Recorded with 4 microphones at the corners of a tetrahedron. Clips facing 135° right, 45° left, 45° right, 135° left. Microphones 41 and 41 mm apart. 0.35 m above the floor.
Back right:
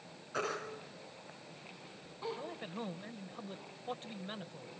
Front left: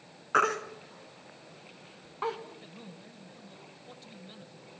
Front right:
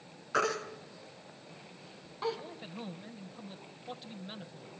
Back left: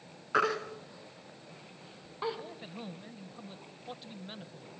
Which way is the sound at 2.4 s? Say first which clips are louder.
Back right 4 dB, even; 140° right.